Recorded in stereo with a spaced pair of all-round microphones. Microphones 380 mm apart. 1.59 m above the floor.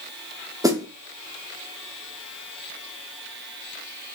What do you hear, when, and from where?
0.6 s a snare drum: 10° right (ahead or behind), 1.0 m